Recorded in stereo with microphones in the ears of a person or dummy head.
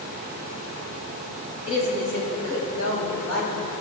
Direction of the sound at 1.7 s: 80° left.